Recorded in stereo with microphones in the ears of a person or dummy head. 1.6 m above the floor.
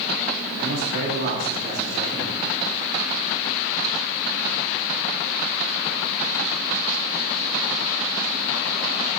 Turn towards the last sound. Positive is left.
turn(degrees=-60)  # may be behind; listen again after turning